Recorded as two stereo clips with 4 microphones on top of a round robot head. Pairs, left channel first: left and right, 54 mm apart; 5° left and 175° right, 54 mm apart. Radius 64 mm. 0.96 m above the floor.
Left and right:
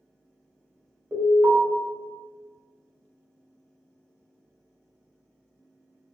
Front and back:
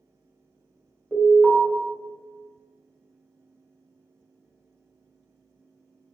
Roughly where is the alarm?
Right.